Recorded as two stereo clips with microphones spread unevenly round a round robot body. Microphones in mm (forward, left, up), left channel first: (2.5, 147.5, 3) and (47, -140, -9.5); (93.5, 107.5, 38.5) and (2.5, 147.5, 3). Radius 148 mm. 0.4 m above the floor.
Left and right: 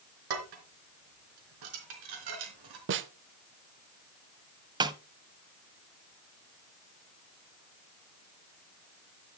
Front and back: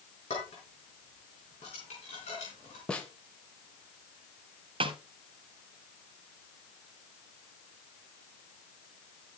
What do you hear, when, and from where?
0.3 s dishes clattering: 85° right, 3.5 m
2.9 s a snare drum: 120° right, 0.7 m
4.8 s a snare drum: 155° right, 0.6 m